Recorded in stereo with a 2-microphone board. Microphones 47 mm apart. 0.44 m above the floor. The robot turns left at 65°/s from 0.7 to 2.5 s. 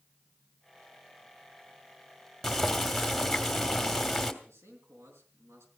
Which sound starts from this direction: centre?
Boiling, at 2.4 s.